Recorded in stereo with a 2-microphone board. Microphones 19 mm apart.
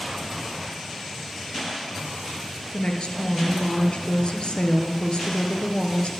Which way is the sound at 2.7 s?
60° left (ahead or behind).